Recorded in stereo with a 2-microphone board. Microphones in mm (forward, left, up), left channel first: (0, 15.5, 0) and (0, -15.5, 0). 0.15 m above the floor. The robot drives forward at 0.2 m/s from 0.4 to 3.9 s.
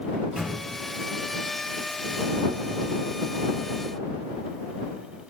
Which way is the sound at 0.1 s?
40° right (ahead or behind).